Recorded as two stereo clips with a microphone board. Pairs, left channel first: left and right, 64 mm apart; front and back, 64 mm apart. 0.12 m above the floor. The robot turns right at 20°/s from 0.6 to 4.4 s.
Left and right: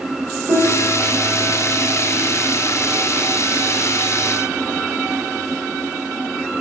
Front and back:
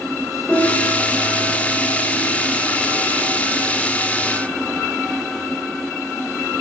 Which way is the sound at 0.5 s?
85° right.